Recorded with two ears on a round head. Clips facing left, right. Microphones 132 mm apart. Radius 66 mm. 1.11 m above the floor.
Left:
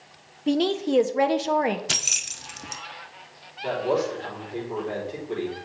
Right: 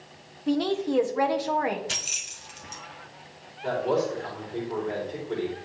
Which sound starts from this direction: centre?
A man speaking, at 3.6 s.